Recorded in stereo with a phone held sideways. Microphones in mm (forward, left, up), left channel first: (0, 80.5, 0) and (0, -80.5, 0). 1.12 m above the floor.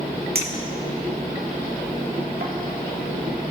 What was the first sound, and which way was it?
A clink, 75° right (ahead or behind).